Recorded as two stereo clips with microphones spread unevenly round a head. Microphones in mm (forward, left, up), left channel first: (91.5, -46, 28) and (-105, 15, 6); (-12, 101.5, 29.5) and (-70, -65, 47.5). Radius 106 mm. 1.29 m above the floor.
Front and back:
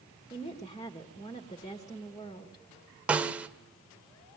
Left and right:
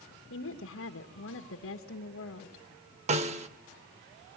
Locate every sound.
0.3 s a woman speaking: 55° left, 1.6 m
3.1 s a snare drum: 110° right, 1.1 m